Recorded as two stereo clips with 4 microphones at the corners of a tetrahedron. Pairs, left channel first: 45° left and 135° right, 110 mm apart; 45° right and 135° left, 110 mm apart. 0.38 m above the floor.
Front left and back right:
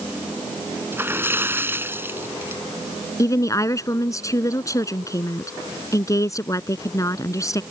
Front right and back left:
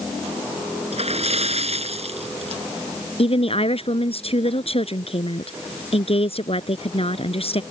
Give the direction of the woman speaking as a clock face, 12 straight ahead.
1 o'clock.